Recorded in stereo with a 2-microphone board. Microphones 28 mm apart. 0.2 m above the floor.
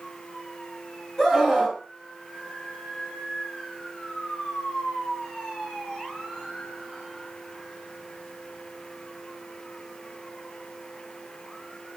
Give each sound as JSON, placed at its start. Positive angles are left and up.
{"t": 1.2, "sound": "a scream", "side_deg": 15, "distance_m": 1.7}